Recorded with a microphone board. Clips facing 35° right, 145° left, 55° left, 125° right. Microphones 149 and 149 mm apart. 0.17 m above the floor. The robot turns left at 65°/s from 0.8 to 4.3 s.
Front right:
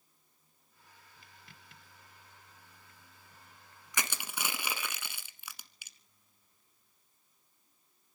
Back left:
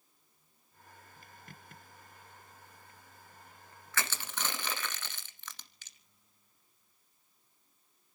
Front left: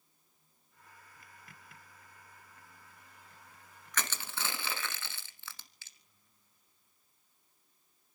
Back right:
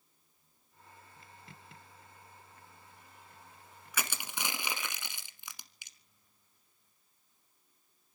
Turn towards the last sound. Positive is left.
turn(degrees=-90)